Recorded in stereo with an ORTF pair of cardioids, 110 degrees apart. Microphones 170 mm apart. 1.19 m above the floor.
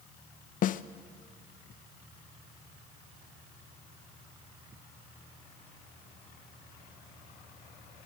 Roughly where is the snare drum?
Ahead left.